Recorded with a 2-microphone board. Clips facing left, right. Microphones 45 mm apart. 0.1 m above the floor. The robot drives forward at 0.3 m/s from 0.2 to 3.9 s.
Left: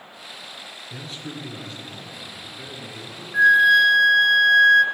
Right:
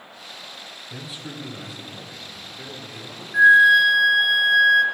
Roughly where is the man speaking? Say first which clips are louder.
Left 1 dB; centre.